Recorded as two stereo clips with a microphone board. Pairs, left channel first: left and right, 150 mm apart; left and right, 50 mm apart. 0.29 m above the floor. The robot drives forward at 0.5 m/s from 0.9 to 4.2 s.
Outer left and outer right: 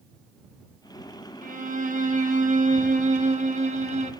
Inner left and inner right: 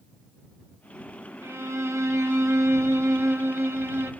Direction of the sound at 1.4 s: 65° right (ahead or behind).